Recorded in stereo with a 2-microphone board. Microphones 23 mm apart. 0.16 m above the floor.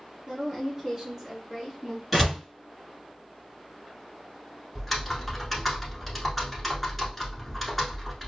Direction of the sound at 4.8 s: 5° left (ahead or behind).